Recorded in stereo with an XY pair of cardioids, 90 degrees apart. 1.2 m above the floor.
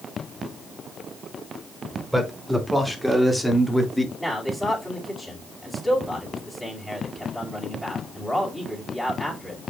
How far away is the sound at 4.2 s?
About 4.5 m.